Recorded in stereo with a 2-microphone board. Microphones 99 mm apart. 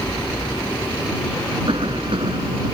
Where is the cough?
60° right (ahead or behind).